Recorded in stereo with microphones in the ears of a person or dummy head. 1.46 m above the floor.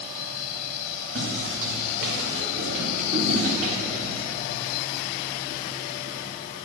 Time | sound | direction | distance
1.1 | footsteps | 55° right (ahead or behind) | 3.5 m